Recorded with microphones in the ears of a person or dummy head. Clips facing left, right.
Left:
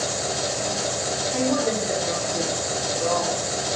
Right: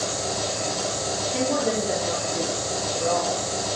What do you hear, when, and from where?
0.0 s an engine running: 10° left (ahead or behind), 2 m
1.3 s a woman speaking: centre (ahead or behind), 1.1 m